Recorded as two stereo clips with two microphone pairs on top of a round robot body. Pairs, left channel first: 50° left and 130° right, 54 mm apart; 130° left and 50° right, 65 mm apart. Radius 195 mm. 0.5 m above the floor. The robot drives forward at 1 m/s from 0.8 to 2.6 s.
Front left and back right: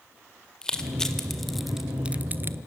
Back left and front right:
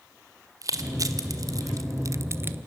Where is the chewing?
No chewing in this recording.